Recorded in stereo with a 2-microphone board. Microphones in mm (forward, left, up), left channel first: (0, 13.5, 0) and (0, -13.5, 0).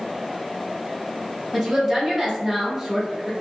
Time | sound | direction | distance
1.5 | a woman speaking | 5° right (ahead or behind) | 1.3 m